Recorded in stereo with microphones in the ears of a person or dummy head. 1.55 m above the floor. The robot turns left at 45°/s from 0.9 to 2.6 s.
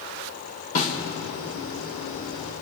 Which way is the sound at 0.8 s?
45° left (ahead or behind).